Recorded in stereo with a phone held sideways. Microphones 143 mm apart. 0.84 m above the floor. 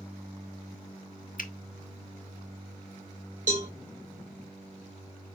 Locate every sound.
1.4 s a finger snap: 70° left (ahead or behind), 0.8 m
3.5 s a cowbell: 60° right (ahead or behind), 1.7 m